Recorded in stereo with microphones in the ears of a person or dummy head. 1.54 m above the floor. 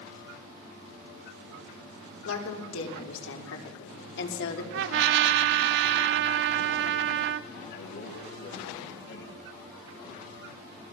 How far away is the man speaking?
About 4 m.